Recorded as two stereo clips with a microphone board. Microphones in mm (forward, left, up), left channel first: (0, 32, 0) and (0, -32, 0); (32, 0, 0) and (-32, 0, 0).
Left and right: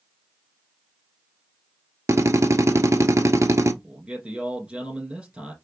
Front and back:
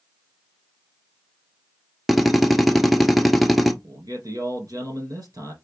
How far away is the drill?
About 0.7 m.